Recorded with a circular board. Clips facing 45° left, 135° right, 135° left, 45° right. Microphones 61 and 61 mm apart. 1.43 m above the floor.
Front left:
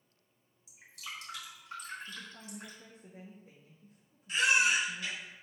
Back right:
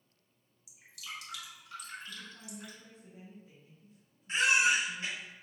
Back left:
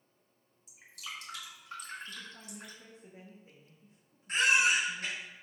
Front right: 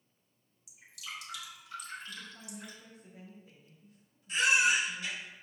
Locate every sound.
0.7 s dripping: 95° left, 3 m
2.1 s a woman speaking: 75° left, 1.3 m
4.3 s a baby crying: 165° left, 2.5 m